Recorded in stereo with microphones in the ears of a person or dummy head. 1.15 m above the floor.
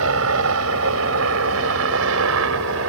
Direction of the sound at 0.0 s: 75° right (ahead or behind).